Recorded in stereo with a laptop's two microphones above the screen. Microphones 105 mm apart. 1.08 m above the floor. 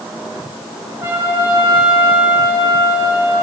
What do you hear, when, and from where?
1.0 s a trumpet: 25° right (ahead or behind), 4.5 m